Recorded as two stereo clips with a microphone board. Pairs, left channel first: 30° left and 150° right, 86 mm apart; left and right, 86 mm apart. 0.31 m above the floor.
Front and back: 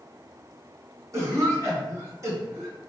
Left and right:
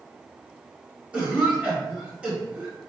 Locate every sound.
1.1 s a cough: 160° right, 1.7 m